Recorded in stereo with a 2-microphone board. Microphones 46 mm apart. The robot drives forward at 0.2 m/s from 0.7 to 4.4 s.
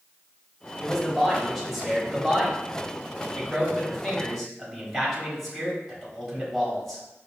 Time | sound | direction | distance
0.8 | a man speaking | centre (ahead or behind) | 1.1 m